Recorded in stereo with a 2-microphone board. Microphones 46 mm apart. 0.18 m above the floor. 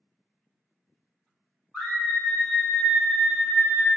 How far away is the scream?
About 1.5 m.